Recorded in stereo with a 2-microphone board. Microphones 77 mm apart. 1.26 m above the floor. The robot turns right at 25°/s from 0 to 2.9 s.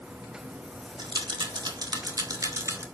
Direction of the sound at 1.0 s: 75° right (ahead or behind).